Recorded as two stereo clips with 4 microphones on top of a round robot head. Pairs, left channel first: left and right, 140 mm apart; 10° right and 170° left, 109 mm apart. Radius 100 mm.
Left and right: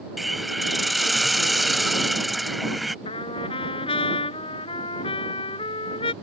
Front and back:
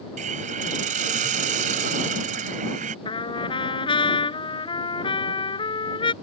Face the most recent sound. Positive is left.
turn(degrees=30)